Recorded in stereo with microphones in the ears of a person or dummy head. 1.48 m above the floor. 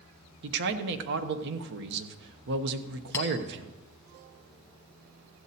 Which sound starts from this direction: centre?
A clink, at 3.1 s.